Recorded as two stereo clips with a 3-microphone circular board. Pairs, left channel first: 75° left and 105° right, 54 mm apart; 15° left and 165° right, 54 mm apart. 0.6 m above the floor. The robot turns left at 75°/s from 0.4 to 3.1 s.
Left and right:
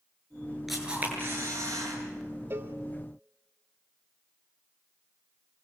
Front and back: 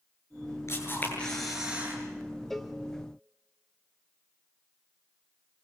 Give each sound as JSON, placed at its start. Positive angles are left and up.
{"t": 0.7, "sound": "a camera shutter", "azimuth_deg": -15, "distance_m": 8.5}
{"t": 2.5, "sound": "a cowbell", "azimuth_deg": -65, "distance_m": 1.6}